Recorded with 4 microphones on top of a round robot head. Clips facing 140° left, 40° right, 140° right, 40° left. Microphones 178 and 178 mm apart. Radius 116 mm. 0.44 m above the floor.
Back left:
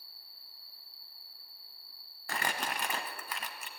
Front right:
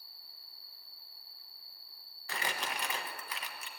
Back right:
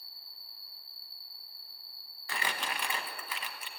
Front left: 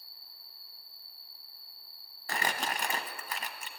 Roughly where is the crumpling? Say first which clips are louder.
Back left 3 dB, front left 3 dB; left.